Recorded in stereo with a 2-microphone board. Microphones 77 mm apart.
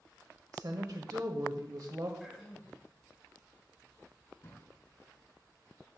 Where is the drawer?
45° left (ahead or behind), 2.5 m.